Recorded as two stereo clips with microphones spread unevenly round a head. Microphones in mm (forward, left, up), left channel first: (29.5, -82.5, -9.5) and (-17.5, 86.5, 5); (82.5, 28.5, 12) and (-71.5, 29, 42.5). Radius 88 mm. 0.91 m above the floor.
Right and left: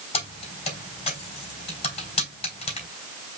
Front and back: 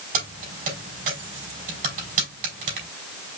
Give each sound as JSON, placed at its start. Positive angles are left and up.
{"t": 0.1, "sound": "keys jangling", "azimuth_deg": -135, "distance_m": 3.5}